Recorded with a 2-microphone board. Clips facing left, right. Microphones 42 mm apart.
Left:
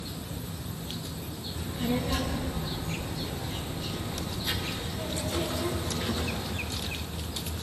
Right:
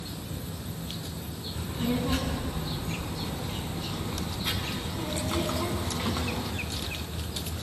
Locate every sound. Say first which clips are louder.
1.6 s a child speaking: right 1 dB; 40° right (ahead or behind), 8 m; by 6.5 s 65° right (ahead or behind), 6.5 m